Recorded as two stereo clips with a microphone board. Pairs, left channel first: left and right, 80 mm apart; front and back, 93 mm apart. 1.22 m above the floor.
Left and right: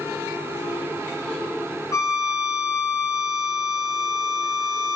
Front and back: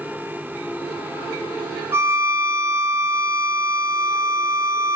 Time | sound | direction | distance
1.9 | a violin | 125° left | 0.5 m